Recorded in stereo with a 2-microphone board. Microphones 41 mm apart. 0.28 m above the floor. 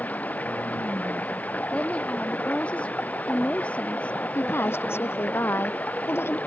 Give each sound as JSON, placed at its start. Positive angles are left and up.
{"t": 0.0, "sound": "running water", "side_deg": 40}
{"t": 1.7, "sound": "a woman speaking", "side_deg": 30}
{"t": 4.3, "sound": "a woman speaking", "side_deg": 80}